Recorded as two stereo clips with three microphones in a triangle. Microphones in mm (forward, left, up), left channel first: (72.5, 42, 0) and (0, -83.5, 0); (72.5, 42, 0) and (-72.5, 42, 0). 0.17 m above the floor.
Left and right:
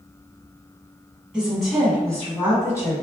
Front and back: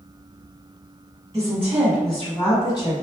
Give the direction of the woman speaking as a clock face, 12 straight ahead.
7 o'clock.